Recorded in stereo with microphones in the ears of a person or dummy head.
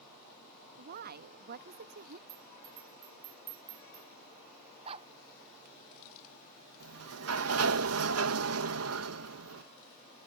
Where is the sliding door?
75° right (ahead or behind).